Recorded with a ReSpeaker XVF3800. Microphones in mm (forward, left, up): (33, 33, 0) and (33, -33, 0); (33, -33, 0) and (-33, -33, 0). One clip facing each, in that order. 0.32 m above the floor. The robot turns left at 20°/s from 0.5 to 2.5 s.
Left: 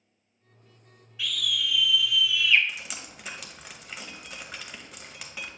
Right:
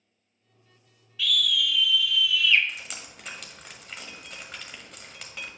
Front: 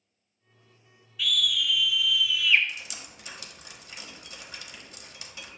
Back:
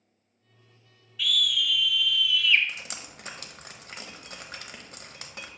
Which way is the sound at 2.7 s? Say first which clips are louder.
Left 1 dB, back 1 dB; 175° left.